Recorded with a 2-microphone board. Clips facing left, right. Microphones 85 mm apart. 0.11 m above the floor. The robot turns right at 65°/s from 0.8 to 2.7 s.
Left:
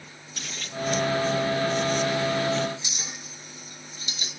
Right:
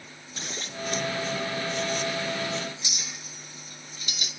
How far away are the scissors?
About 1.8 m.